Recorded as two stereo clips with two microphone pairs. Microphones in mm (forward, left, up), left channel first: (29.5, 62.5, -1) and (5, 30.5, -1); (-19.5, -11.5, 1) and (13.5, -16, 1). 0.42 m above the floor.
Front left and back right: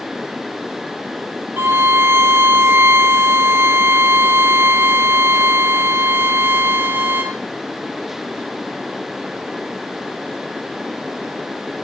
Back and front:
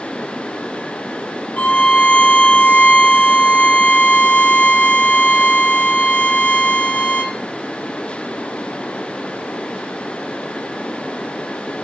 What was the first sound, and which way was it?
A violin, 145° right.